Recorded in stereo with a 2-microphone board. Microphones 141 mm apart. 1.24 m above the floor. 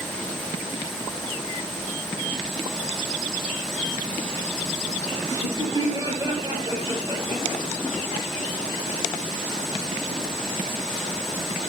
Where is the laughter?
25° right (ahead or behind), 9.5 m; by 7.6 s 40° right (ahead or behind), 8.5 m.